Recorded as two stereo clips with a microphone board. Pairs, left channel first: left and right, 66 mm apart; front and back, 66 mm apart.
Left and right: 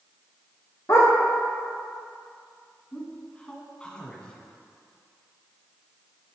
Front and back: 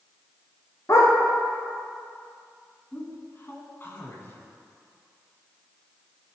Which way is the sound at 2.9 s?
25° left.